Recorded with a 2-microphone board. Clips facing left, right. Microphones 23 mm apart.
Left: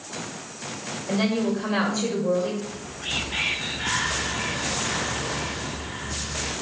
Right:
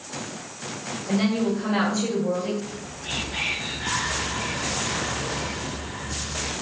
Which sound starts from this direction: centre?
A woman speaking, at 1.1 s.